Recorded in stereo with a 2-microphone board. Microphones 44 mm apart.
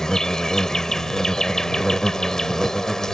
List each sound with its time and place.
0.0 s an insect: 15° left (ahead or behind)